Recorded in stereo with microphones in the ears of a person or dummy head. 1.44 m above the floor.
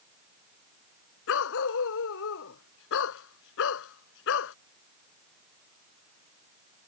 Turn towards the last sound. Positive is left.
turn(degrees=75)  # may be behind; listen again after turning